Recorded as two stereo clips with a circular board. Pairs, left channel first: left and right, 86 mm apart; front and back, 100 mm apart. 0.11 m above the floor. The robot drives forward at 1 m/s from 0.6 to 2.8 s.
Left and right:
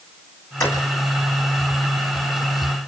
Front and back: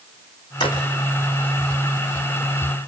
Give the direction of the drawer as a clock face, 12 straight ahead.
11 o'clock.